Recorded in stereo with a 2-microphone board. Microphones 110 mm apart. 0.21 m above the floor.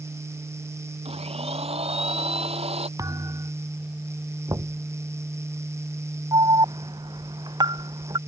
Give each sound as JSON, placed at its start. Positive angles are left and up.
{"t": 1.1, "sound": "a blender", "side_deg": -70}
{"t": 3.0, "sound": "a thud", "side_deg": -30}
{"t": 4.5, "sound": "knocking", "side_deg": -30}
{"t": 6.3, "sound": "an alarm", "side_deg": -40}